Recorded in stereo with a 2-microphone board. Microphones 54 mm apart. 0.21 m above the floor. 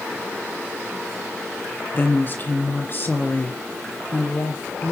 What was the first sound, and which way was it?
A woman speaking, 40° left (ahead or behind).